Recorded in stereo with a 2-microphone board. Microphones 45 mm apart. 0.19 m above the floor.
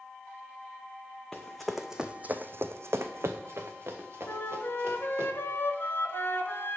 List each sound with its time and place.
1.3 s running footsteps: 10° left (ahead or behind), 0.8 m; by 5.3 s 55° right (ahead or behind), 1.9 m
4.3 s a flute: 60° left (ahead or behind), 0.6 m